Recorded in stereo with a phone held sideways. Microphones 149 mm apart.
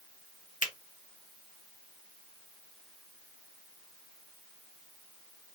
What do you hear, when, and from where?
0.6 s a finger snap: 60° left (ahead or behind), 0.9 m